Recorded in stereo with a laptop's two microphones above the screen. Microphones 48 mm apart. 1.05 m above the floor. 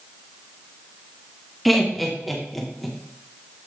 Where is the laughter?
Centre (ahead or behind), 0.8 m.